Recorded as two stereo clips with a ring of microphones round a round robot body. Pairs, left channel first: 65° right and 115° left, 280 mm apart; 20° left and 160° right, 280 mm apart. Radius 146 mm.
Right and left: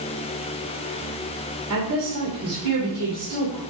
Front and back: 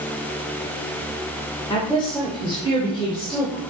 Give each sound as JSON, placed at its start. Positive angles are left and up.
{"t": 1.7, "sound": "a woman speaking", "azimuth_deg": 95, "distance_m": 2.5}